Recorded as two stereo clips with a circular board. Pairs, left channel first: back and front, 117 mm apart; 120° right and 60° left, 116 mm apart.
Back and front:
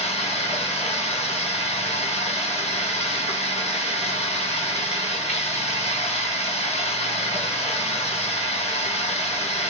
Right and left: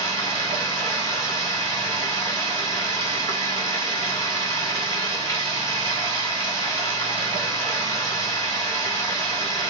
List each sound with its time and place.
0.0 s running water: straight behind, 1.7 m